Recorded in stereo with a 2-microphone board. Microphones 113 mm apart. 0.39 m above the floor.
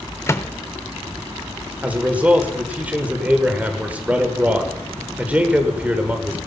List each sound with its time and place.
0.3 s a microwave: 25° left (ahead or behind), 0.7 m
1.8 s a man speaking: 15° right (ahead or behind), 1.5 m